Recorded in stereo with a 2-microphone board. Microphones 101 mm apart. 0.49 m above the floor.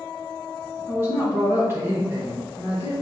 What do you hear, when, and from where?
0.9 s a woman speaking: 25° right (ahead or behind), 2 m